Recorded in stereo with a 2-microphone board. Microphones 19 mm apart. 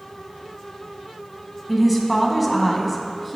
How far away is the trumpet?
I don't hear a trumpet.